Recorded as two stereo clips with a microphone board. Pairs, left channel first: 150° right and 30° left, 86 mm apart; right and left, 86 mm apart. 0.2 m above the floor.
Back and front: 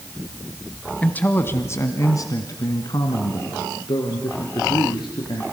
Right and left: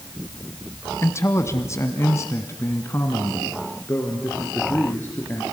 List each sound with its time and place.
1.0 s a man speaking: 90° right, 1.2 m; by 5.4 s 155° right, 3.5 m